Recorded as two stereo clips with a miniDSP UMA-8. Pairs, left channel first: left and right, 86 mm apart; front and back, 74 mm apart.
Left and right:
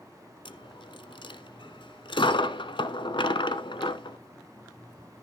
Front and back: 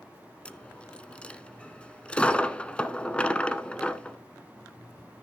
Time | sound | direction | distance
0.5 | a dropped coin | 75° left | 0.9 m